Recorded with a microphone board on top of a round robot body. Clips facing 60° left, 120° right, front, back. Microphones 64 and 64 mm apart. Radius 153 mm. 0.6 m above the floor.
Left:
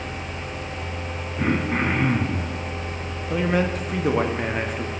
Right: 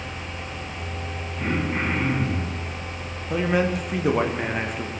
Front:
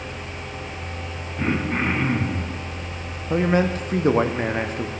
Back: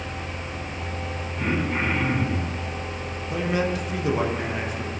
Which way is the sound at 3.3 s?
30° right.